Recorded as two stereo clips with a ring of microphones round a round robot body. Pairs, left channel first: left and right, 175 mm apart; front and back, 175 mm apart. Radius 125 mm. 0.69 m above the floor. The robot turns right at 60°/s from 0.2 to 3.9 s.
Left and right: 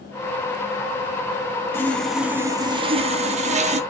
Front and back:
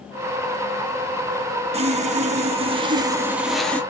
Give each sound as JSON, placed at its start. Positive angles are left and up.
{"t": 1.7, "sound": "sawing", "azimuth_deg": 160, "distance_m": 1.1}